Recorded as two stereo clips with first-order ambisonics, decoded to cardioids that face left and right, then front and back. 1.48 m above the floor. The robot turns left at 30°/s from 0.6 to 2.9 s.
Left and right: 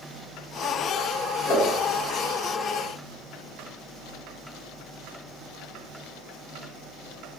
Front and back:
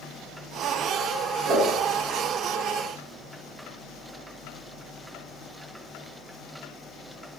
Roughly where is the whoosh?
Behind left.